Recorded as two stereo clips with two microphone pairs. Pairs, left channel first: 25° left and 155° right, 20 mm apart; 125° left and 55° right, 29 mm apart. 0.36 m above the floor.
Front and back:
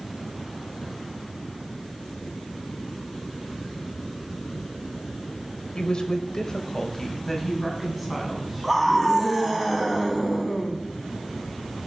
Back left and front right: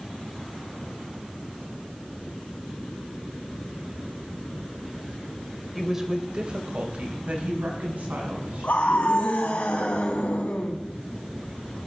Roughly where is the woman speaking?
Ahead left.